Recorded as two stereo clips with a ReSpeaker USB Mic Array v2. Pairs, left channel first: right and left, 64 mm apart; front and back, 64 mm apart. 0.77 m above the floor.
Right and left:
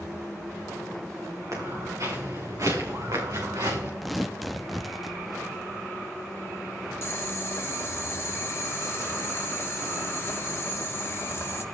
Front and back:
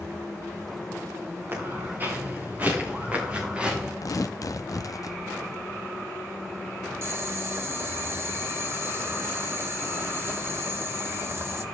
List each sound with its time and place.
1.5 s footsteps: 125° left, 7.5 m; by 3.9 s 105° left, 4.5 m
4.0 s tearing paper: straight ahead, 0.6 m
7.0 s boiling: 135° right, 1.3 m